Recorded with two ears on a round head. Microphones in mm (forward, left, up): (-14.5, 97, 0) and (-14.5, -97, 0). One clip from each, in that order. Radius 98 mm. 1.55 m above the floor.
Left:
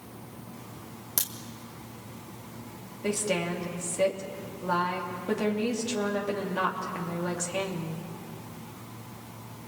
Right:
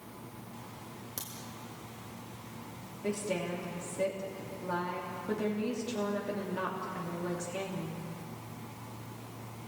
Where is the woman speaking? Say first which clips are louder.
Left 5 dB; 30° left (ahead or behind), 3 m.